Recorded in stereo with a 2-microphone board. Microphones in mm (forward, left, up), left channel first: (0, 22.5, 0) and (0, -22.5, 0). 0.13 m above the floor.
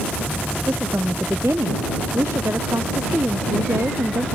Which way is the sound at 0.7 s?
70° right (ahead or behind).